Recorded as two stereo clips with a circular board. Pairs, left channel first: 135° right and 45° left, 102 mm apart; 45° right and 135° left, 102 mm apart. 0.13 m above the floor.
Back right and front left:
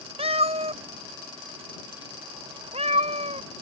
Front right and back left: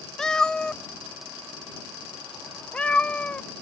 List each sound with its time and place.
0.2 s a cat meowing: 40° left; by 3.5 s 35° left